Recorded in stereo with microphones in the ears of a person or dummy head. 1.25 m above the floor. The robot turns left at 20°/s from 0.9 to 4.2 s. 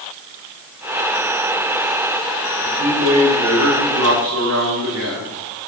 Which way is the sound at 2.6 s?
75° right.